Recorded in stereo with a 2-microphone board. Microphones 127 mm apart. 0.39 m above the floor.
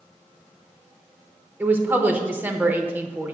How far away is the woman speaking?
About 0.8 m.